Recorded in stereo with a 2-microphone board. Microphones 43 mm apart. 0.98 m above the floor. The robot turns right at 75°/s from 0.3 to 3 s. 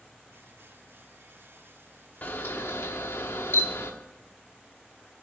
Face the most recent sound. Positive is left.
turn(degrees=105)